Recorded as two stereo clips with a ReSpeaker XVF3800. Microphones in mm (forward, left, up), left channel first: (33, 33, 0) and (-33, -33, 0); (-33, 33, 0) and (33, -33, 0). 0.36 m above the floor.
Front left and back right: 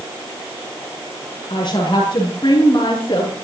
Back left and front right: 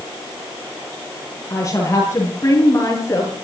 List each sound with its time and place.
1.5 s a woman speaking: 80° left, 9 m